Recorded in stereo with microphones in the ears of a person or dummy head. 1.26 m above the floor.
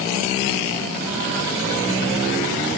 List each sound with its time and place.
Only background noise.